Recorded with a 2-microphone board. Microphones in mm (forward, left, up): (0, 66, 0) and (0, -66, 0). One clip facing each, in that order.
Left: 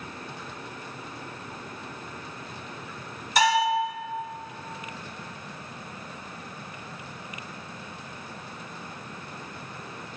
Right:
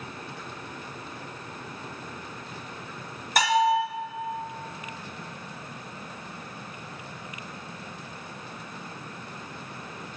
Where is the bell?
50° right (ahead or behind), 4 m.